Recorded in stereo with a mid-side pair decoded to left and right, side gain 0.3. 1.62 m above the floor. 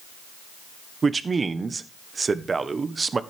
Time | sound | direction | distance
1.0 | a man speaking | 45° right | 1.4 m